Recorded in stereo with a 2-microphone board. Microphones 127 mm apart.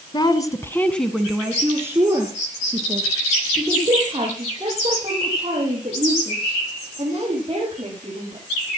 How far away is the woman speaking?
About 1.4 m.